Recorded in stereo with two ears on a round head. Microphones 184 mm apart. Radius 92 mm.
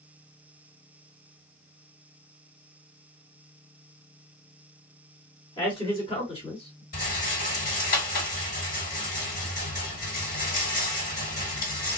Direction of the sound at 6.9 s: 45° left (ahead or behind).